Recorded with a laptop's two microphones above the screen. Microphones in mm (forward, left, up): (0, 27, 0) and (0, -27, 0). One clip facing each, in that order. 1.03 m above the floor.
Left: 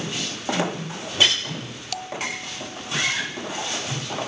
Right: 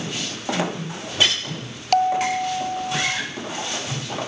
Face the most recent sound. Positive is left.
turn(degrees=-55)  # may be behind; listen again after turning